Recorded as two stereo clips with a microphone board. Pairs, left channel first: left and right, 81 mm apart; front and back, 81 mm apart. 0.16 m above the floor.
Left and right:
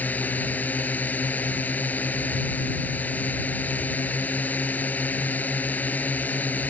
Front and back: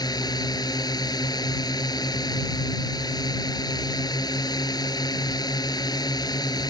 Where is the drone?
20° left.